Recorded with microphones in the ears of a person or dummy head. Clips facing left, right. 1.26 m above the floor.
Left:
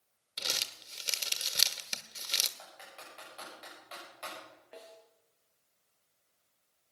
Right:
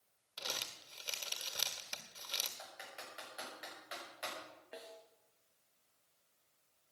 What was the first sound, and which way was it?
Crumpling, 35° left (ahead or behind).